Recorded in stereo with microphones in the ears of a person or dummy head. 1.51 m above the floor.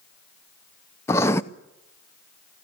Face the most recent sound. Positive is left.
turn(degrees=15)  # may be behind; listen again after turning